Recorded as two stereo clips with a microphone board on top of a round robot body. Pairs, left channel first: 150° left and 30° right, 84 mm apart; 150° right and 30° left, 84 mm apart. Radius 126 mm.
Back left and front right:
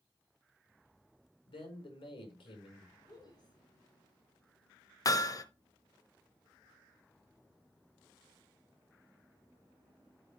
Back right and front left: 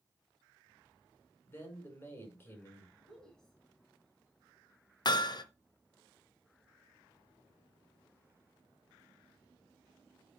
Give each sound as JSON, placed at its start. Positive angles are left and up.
{"t": 1.5, "sound": "a man speaking", "azimuth_deg": 145, "distance_m": 4.5}
{"t": 3.0, "sound": "a woman speaking", "azimuth_deg": 130, "distance_m": 2.0}
{"t": 5.0, "sound": "hammering", "azimuth_deg": -170, "distance_m": 1.2}